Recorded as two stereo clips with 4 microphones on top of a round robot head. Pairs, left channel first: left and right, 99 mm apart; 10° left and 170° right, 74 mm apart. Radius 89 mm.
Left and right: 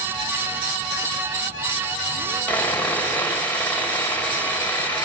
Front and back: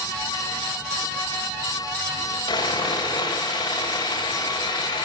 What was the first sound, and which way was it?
Sawing, 20° left.